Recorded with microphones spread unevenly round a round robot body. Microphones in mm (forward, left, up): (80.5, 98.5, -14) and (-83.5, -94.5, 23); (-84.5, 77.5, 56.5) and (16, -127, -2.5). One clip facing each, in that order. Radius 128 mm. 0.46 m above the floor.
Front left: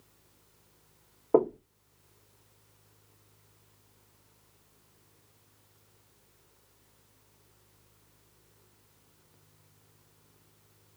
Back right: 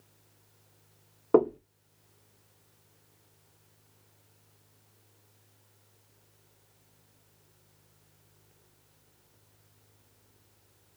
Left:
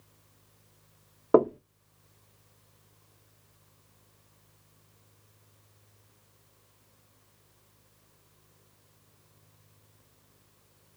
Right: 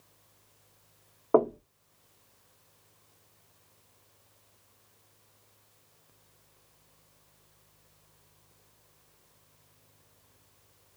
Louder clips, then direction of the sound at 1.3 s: Back right 2 dB, left 3 dB; 165° left.